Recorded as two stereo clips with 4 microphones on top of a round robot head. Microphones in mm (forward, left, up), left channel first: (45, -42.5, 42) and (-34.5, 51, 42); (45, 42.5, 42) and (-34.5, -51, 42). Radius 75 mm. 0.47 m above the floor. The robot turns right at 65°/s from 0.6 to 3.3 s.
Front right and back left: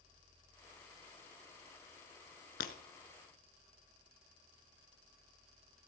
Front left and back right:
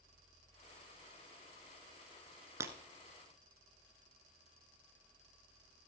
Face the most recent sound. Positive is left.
turn(degrees=-15)